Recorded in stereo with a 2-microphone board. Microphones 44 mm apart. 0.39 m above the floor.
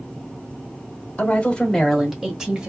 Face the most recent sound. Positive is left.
turn(degrees=-20)  # may be behind; listen again after turning